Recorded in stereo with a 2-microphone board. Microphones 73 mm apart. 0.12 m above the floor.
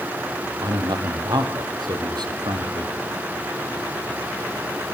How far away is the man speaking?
About 4 m.